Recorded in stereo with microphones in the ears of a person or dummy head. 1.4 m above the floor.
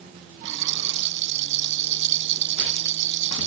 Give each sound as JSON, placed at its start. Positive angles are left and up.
{"t": 0.5, "sound": "a rattle", "side_deg": -65}